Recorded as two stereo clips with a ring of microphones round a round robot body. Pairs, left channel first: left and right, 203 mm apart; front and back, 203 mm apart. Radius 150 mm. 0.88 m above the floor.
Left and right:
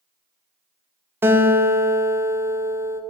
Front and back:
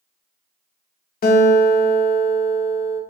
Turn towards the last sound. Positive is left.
turn(degrees=-15)